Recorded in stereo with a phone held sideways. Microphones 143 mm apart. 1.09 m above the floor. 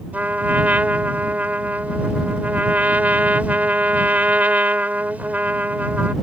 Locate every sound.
0.1 s a trumpet: 10° right (ahead or behind)